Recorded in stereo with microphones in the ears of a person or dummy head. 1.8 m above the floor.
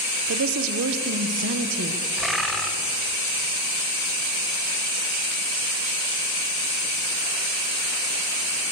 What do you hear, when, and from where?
0.3 s a woman speaking: 80° right, 1.4 m; by 2.0 s 55° right (ahead or behind), 1.8 m
2.2 s a bird: centre (ahead or behind), 2 m